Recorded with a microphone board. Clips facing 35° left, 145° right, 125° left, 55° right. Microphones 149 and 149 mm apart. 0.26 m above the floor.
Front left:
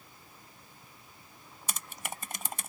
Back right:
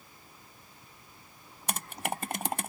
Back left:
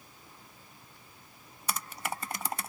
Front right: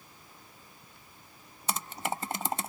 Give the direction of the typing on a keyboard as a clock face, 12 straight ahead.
4 o'clock.